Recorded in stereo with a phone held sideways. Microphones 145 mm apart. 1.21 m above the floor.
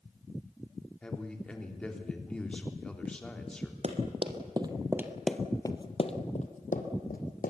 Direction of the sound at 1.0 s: 5° left (ahead or behind).